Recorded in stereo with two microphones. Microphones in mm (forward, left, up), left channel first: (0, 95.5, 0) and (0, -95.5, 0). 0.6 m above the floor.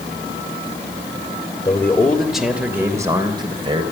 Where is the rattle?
I don't hear a rattle.